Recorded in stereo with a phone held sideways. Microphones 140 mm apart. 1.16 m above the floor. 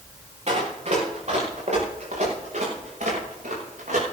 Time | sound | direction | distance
0.5 | running footsteps | 50° right (ahead or behind) | 5 m